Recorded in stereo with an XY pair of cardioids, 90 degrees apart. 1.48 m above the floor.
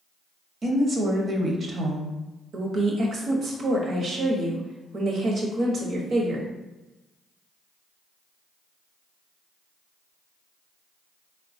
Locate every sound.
0.6 s a woman speaking: 50° right, 0.8 m
2.5 s a woman speaking: 60° right, 0.9 m